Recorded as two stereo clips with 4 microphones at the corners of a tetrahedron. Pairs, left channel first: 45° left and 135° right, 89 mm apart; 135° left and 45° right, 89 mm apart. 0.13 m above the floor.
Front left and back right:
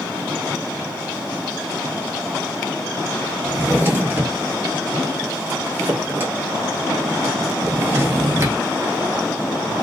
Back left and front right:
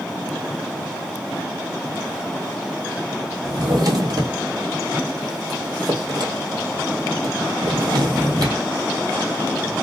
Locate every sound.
3.4 s a drawer: 75° right, 1.3 m